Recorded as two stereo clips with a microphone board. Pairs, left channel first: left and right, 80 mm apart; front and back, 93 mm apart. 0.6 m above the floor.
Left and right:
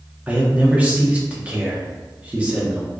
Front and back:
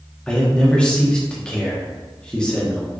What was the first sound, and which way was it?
A man speaking, 60° right.